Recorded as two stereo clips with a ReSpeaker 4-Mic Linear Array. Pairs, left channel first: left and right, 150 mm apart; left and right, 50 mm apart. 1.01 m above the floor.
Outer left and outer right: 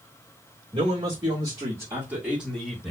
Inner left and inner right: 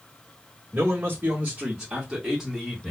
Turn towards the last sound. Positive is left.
turn(degrees=0)  # may be behind; listen again after turning